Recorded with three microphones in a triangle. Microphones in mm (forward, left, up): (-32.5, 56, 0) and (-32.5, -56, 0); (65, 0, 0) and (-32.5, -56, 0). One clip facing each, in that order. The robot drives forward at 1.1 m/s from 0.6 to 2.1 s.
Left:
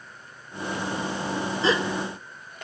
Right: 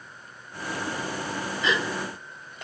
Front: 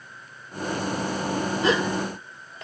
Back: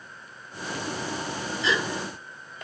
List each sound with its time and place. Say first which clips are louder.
1.6 s a gasp: left 3 dB, front 4 dB; 45° left, 1.3 m; by 2.6 s 75° left, 1.1 m